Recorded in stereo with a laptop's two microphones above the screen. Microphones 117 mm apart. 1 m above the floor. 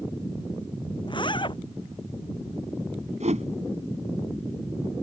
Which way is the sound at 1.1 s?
45° left (ahead or behind).